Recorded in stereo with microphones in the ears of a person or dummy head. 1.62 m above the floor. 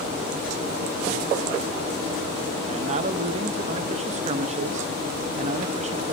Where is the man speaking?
35° right (ahead or behind), 0.7 m.